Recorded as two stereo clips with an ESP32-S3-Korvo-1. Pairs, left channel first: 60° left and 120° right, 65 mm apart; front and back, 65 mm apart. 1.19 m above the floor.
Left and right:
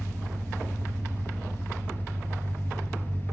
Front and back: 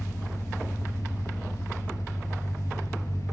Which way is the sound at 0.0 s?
5° left.